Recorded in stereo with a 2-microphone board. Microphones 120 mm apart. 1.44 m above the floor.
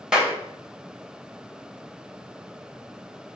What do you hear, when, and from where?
0.1 s a clap: 5° right (ahead or behind), 1.0 m